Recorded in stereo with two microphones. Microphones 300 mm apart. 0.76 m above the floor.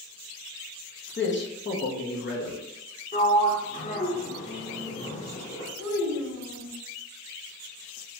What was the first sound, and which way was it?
A man speaking, 40° left (ahead or behind).